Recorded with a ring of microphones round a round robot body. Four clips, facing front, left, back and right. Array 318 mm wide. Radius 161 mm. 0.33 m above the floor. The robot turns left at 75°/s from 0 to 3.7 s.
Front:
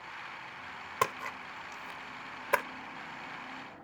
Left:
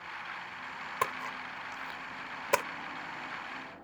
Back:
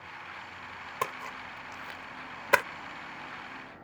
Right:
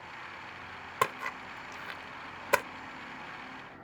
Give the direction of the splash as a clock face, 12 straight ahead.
2 o'clock.